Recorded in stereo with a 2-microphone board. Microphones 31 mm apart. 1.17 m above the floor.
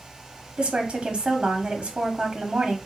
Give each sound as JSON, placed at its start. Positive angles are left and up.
{"t": 0.6, "sound": "a woman speaking", "side_deg": -40, "distance_m": 0.8}